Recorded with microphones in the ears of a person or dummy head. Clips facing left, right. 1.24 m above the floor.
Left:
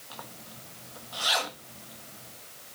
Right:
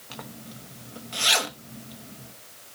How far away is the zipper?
About 0.9 m.